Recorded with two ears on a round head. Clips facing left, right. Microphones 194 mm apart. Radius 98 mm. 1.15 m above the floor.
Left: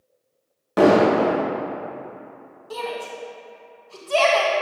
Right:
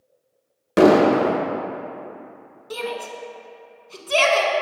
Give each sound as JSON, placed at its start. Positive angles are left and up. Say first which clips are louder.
{"t": 0.8, "sound": "an explosion", "louder": "right 1 dB", "side_deg": -30, "distance_m": 0.8}
{"t": 2.7, "sound": "a shout", "louder": "right 1 dB", "side_deg": -20, "distance_m": 0.9}